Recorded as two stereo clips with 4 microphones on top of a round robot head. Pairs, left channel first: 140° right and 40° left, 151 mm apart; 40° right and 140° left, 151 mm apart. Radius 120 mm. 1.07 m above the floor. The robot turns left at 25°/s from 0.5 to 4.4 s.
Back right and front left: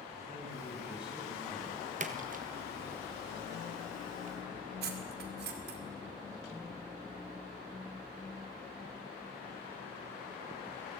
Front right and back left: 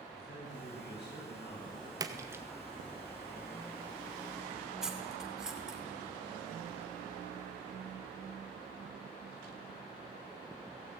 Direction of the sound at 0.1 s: 30° right.